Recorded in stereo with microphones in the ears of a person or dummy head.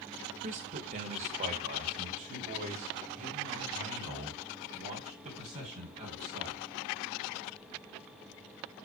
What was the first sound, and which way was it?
A man speaking, 35° right (ahead or behind).